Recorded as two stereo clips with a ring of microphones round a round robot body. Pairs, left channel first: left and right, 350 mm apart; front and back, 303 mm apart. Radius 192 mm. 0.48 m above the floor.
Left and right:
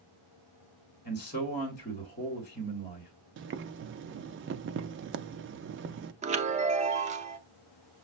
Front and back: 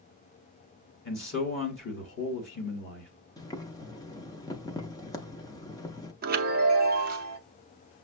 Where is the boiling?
70° right, 0.5 m.